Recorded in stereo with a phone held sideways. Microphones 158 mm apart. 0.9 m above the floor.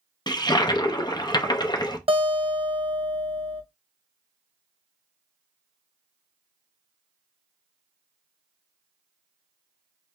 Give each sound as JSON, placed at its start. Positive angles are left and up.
{"t": 0.3, "sound": "a toilet flushing", "side_deg": 30, "distance_m": 0.5}
{"t": 2.1, "sound": "a guitar", "side_deg": -35, "distance_m": 1.3}